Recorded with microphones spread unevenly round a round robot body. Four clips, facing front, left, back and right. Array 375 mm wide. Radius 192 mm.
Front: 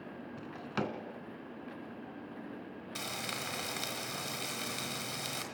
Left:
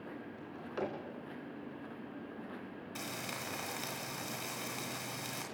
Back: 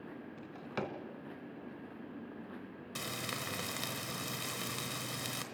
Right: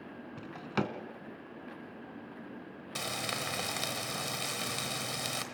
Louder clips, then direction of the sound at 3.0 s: Right 7 dB, even; 145° right.